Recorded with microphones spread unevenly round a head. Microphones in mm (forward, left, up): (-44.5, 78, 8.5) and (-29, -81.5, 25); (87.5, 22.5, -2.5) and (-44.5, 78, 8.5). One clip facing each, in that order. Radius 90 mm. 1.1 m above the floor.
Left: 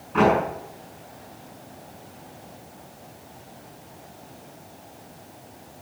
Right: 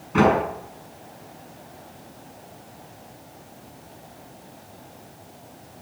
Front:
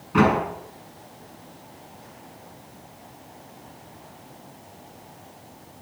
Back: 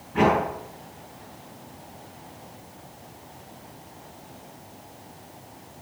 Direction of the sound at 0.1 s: 30° right.